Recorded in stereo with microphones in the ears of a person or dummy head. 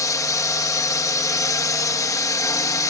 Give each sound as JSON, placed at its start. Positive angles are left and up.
{"t": 0.0, "sound": "a drone", "side_deg": 15}